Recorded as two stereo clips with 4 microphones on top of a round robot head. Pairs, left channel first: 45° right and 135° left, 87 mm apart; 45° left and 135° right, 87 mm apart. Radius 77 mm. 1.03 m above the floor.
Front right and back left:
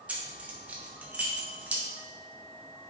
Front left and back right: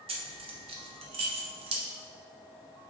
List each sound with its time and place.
0.1 s keys jangling: 150° right, 1.2 m